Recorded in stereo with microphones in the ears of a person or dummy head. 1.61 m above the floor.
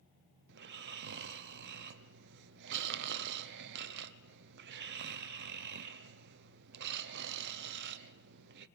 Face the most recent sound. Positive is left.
turn(degrees=-65)  # may be behind; listen again after turning